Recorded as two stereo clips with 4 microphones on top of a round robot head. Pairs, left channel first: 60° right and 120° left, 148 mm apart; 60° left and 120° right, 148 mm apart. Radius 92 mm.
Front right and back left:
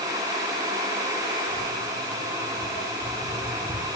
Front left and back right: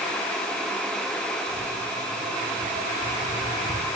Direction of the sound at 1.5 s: 35° right.